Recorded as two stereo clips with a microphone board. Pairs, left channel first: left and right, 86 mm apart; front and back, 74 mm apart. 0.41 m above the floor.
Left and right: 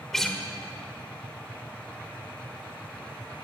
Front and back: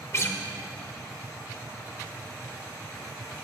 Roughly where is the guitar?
Ahead.